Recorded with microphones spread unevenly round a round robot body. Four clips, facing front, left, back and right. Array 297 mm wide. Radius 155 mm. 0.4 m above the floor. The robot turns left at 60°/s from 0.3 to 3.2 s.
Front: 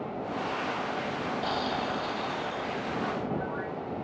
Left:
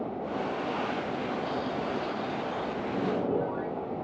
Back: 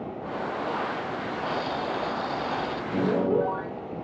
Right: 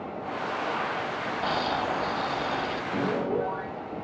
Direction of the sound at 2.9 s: 160° right.